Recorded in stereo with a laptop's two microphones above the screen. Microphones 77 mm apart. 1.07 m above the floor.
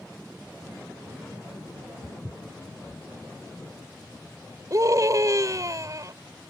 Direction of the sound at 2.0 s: 10° left (ahead or behind).